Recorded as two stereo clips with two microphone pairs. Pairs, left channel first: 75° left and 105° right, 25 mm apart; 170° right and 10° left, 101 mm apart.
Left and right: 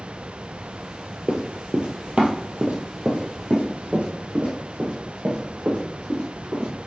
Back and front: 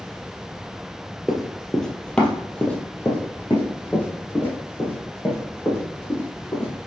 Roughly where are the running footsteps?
Right.